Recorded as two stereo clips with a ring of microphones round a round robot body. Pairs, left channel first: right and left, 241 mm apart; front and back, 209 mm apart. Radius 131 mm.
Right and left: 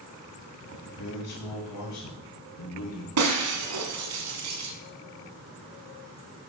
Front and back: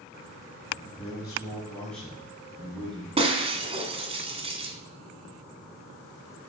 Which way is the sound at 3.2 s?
115° left.